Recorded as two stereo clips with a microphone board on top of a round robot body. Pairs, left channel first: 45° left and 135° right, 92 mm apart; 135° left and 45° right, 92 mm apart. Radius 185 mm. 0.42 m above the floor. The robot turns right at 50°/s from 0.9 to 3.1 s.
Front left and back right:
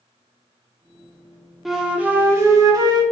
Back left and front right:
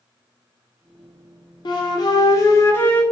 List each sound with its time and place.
1.6 s a flute: 135° left, 0.8 m; by 3.0 s 155° right, 0.8 m